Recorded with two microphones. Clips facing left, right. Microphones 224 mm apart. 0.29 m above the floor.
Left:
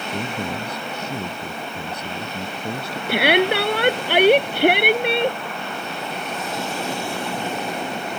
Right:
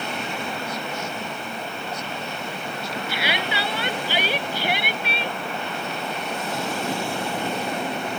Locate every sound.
0.1 s a man speaking: 60° left (ahead or behind)
3.1 s a shout: 65° left (ahead or behind)